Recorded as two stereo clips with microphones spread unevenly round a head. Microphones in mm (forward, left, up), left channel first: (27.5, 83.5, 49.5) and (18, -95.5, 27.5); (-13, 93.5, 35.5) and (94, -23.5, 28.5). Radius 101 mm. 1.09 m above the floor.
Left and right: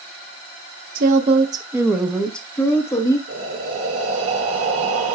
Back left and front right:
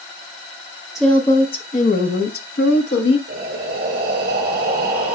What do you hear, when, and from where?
0.9 s a woman speaking: 135° right, 0.6 m; by 3.2 s 160° left, 1.4 m
3.3 s breathing: 95° right, 4.5 m